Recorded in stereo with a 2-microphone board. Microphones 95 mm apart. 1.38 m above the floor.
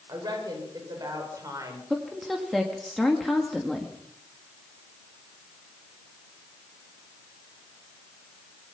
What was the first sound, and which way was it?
A woman speaking, 45° right (ahead or behind).